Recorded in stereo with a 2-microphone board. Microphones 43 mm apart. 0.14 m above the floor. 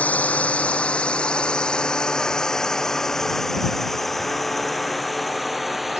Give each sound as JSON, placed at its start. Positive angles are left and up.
{"t": 0.0, "sound": "a drone", "side_deg": 35}